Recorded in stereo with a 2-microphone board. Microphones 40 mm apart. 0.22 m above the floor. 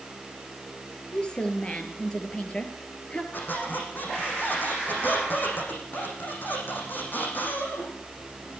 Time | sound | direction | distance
1.1 | a woman speaking | 25° left (ahead or behind) | 5.5 m
3.3 | a squeak | 50° left (ahead or behind) | 8.5 m